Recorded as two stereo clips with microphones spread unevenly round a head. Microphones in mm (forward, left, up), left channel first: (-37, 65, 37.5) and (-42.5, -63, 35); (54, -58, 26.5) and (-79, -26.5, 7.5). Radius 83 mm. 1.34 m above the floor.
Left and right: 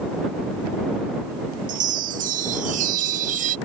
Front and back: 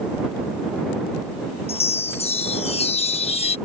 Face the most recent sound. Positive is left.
turn(degrees=-60)